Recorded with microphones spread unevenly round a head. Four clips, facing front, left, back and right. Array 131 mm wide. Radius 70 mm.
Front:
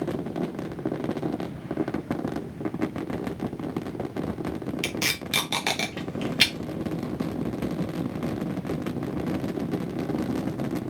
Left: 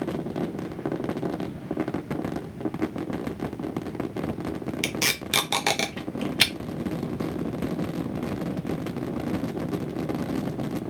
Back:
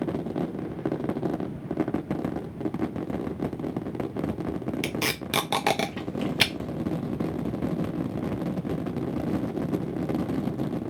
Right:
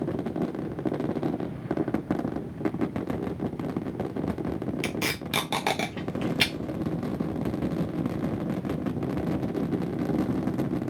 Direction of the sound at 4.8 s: Straight behind.